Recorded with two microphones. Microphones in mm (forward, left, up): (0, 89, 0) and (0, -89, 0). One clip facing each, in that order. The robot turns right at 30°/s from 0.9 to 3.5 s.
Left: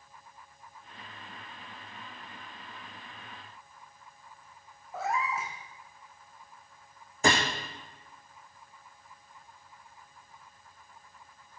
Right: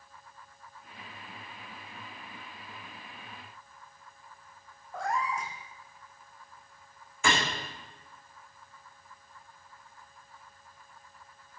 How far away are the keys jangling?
I don't hear keys jangling.